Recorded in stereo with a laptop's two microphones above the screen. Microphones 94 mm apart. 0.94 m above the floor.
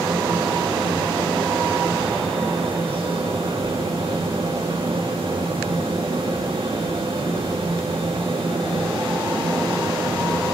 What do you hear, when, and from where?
0.0 s a fan: 80° right, 1.0 m